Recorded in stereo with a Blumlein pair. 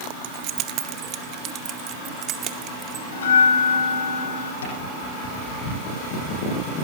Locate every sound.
0.2 s keys jangling: 45° right, 0.6 m; by 3.0 s 30° right, 2.5 m
3.1 s a bell: 65° left, 4.5 m
4.6 s tapping: 70° left, 8 m